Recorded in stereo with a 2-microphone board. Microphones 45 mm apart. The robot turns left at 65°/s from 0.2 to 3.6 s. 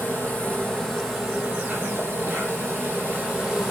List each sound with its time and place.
0.0 s an insect: 50° left, 3 m; by 3.7 s 175° right, 3 m